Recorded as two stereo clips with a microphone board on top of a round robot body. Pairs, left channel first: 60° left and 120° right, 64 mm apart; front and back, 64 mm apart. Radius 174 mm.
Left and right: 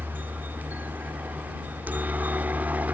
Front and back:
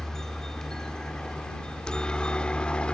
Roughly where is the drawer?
No drawer in this recording.